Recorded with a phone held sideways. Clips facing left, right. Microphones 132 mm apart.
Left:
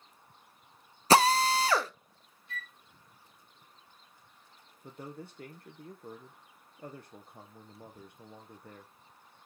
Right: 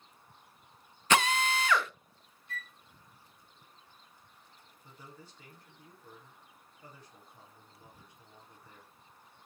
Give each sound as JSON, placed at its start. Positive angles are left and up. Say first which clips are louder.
{"t": 1.1, "sound": "a drill", "louder": "left 5 dB", "side_deg": 35, "distance_m": 0.6}
{"t": 2.5, "sound": "a flute", "louder": "even", "side_deg": -45, "distance_m": 1.9}
{"t": 4.8, "sound": "a man speaking", "louder": "left 9 dB", "side_deg": 60, "distance_m": 0.8}